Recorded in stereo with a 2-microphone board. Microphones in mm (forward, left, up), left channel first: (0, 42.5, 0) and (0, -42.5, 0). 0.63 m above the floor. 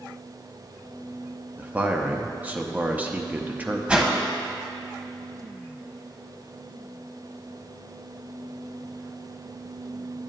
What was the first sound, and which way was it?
A man speaking, 20° right (ahead or behind).